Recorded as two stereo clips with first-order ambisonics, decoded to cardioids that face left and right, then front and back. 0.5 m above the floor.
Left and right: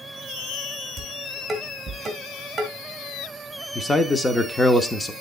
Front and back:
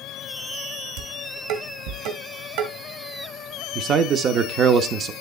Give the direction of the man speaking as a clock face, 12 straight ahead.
7 o'clock.